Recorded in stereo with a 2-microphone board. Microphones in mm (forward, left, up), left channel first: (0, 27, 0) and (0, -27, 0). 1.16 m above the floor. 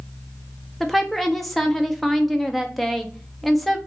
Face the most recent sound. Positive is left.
turn(degrees=0)  # may be behind; listen again after turning